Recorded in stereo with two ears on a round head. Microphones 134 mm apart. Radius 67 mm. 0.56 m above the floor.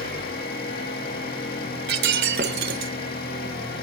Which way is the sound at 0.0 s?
75° left (ahead or behind).